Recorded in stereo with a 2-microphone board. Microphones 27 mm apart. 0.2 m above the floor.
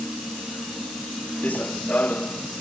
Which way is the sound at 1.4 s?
70° left (ahead or behind).